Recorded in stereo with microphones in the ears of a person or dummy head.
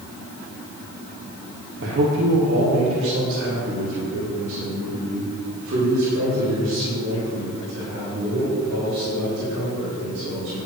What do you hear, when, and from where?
1.8 s a man speaking: 70° right (ahead or behind), 2 m; by 10.6 s 85° right, 7.5 m